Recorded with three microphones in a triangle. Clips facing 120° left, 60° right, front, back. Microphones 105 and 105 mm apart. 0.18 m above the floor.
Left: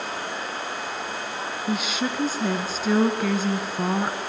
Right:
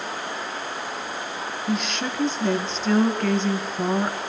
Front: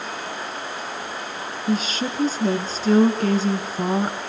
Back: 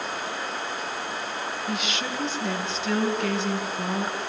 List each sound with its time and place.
1.7 s a woman speaking: 35° left, 1.9 m